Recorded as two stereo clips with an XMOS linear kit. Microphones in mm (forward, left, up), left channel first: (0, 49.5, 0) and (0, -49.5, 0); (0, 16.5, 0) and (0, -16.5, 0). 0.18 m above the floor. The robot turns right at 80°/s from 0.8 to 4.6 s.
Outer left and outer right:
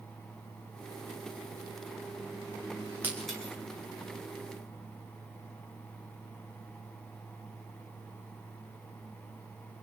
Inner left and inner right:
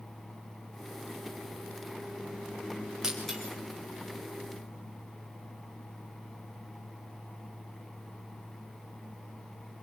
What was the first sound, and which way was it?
Breaking glass, 20° right (ahead or behind).